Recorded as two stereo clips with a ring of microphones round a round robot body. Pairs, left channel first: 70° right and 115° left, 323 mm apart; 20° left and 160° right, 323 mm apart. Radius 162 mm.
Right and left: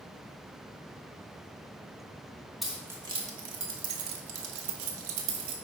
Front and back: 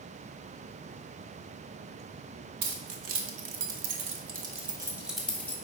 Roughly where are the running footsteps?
No running footsteps in this recording.